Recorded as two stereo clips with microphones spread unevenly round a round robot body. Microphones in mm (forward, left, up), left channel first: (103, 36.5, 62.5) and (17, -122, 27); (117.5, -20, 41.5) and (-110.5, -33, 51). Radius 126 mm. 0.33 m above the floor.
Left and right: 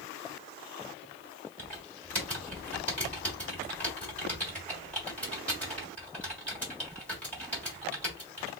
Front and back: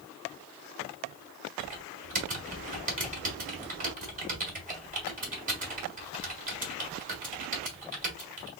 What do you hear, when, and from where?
1.6 s typing on a keyboard: 155° left, 1.4 m